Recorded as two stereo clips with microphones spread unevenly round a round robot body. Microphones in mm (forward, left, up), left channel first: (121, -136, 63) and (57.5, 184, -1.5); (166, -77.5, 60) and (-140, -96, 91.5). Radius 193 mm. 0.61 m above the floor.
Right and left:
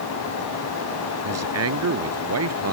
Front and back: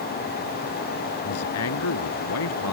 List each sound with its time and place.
1.2 s a man speaking: 55° left